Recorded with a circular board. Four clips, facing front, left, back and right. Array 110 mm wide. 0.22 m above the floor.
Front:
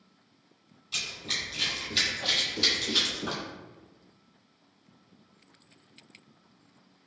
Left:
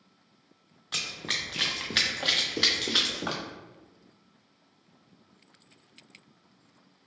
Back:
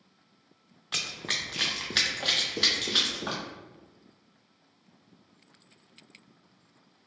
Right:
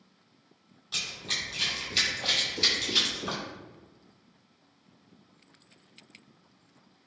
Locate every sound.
0.9 s running footsteps: 155° left, 0.8 m; by 3.4 s 110° left, 1.7 m